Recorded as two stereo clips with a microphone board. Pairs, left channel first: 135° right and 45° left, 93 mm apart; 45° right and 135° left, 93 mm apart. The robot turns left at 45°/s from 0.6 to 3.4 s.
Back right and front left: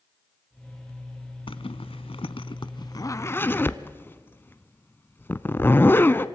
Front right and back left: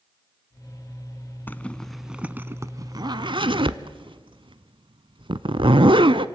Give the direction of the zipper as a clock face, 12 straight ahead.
4 o'clock.